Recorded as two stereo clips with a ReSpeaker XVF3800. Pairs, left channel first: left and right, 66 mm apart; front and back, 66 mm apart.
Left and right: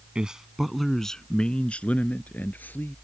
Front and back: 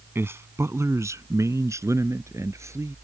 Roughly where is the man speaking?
Behind.